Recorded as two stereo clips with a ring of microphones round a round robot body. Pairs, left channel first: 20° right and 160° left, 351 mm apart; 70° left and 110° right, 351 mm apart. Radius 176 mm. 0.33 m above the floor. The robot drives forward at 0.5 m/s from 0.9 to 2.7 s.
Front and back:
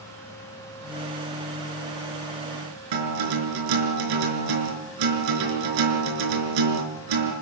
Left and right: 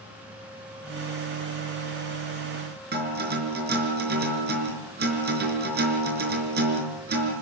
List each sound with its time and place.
2.9 s a guitar: 175° right, 5 m